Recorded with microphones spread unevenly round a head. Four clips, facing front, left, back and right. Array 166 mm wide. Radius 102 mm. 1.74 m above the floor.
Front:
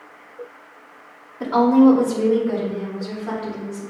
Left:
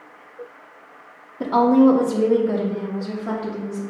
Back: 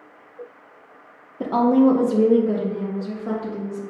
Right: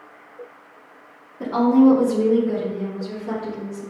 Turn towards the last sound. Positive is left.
turn(degrees=165)